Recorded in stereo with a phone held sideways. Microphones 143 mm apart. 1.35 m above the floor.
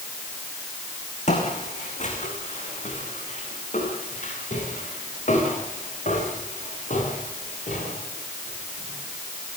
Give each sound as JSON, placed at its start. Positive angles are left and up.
{"t": 1.3, "sound": "footsteps", "side_deg": 55, "distance_m": 6.0}